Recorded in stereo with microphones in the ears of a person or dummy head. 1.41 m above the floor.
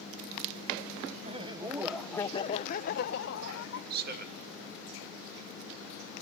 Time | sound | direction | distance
1.2 | laughter | 40° right (ahead or behind) | 1.1 m
3.9 | a man speaking | 55° right (ahead or behind) | 2 m